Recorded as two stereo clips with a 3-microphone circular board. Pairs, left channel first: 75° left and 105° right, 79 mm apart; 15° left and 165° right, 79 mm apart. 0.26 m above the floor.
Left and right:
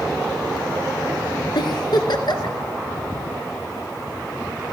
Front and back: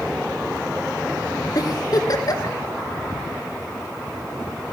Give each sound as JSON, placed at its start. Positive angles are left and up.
{"t": 1.6, "sound": "a giggle", "azimuth_deg": 55, "distance_m": 2.0}